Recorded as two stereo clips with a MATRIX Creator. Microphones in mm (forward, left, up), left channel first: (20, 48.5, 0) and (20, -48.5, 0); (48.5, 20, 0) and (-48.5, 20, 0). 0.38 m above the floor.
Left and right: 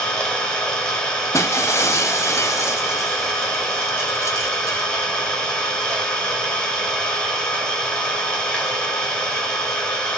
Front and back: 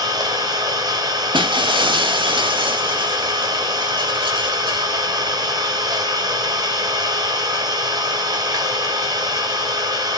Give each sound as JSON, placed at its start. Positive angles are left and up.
{"t": 0.0, "sound": "an engine running", "azimuth_deg": 165, "distance_m": 1.4}
{"t": 1.3, "sound": "breaking glass", "azimuth_deg": 150, "distance_m": 0.6}